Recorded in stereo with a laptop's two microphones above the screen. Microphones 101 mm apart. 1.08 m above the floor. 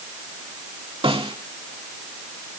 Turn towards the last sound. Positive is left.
turn(degrees=-55)  # may be behind; listen again after turning